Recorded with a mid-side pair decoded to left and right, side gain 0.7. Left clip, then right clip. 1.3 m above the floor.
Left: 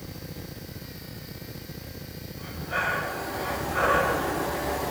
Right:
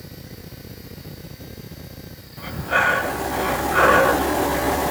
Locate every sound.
2.4 s breathing: 45° right, 0.7 m